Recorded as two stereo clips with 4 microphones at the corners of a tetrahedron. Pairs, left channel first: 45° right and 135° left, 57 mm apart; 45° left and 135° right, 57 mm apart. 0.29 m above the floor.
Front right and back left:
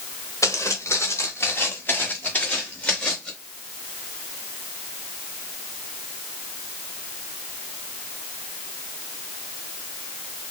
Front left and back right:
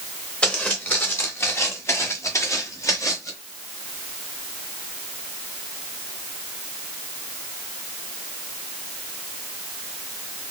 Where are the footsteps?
25° right, 1.2 m; by 3.3 s 25° left, 2 m.